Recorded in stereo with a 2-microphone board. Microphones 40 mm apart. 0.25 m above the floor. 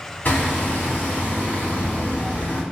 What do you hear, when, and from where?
0.2 s hammering: 45° left (ahead or behind), 1.2 m